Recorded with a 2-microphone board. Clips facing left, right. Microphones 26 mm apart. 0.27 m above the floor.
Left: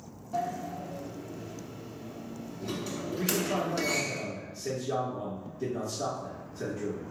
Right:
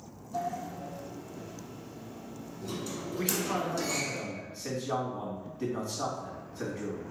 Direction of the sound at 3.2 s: 55° right (ahead or behind).